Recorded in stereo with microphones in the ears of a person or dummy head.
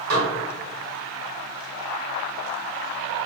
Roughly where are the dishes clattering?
Right.